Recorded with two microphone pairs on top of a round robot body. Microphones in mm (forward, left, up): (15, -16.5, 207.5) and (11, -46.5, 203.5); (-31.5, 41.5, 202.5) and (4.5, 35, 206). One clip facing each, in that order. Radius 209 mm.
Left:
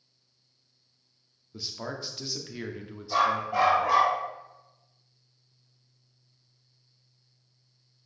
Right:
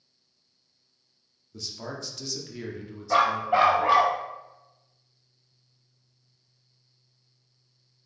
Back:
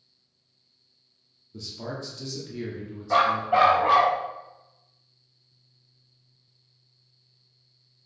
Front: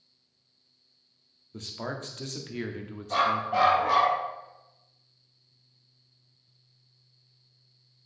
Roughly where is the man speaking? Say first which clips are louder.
Left 1 dB, even; ahead.